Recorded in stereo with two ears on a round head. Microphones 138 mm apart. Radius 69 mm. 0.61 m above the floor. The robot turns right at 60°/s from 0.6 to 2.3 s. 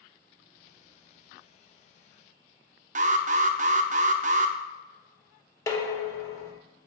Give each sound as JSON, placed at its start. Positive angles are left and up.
{"t": 3.0, "sound": "an alarm", "side_deg": -50, "distance_m": 0.5}
{"t": 5.7, "sound": "dishes clattering", "side_deg": 20, "distance_m": 1.1}